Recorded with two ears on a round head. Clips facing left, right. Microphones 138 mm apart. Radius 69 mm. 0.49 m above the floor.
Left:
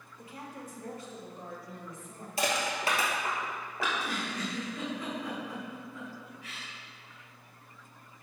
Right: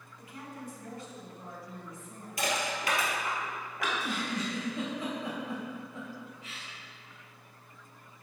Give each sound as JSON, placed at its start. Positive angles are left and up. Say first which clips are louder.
{"t": 0.2, "sound": "a woman speaking", "louder": "even", "side_deg": 25, "distance_m": 1.1}
{"t": 2.4, "sound": "crushing", "louder": "left 1 dB", "side_deg": 25, "distance_m": 1.8}
{"t": 3.9, "sound": "a giggle", "louder": "right 3 dB", "side_deg": -20, "distance_m": 2.0}